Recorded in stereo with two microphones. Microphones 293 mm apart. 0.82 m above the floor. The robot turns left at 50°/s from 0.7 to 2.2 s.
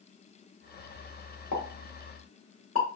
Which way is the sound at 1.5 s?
80° left.